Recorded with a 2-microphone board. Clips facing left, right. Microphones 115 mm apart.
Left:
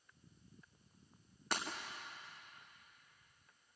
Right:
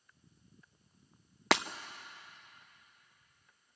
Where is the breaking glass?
85° right, 0.7 m.